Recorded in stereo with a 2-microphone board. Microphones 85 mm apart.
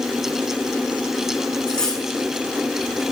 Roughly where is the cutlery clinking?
Centre.